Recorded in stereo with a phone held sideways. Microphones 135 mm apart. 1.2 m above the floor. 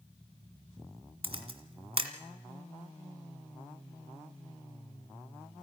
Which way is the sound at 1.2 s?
45° right (ahead or behind).